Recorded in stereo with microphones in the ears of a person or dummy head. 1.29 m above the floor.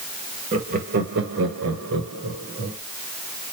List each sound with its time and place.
0.5 s laughter: 35° right (ahead or behind), 1.4 m; by 2.8 s 70° right (ahead or behind), 1.5 m